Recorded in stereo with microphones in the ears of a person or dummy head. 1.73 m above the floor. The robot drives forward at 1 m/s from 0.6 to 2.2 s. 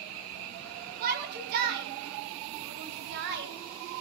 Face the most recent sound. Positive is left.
turn(degrees=-60)  # may be behind; listen again after turning